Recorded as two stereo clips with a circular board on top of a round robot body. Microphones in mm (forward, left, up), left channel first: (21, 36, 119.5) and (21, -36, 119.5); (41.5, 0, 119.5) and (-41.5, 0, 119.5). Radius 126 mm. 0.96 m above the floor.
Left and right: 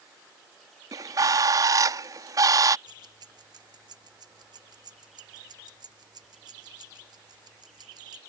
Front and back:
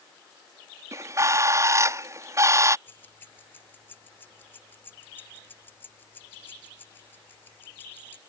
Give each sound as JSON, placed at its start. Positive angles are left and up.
{"t": 0.9, "sound": "a bird", "azimuth_deg": -125}
{"t": 2.9, "sound": "keys jangling", "azimuth_deg": -70}